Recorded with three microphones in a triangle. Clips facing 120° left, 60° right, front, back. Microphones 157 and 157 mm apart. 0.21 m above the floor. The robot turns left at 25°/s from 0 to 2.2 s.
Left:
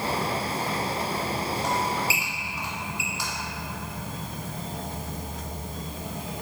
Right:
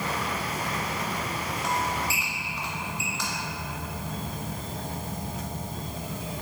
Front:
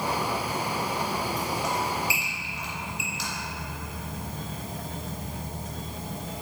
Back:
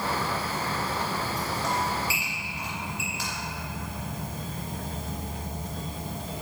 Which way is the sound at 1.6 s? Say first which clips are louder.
Even, even; 150° right.